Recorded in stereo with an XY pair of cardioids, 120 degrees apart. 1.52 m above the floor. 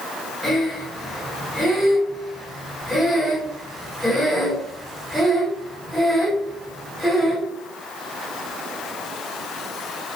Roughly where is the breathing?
Ahead.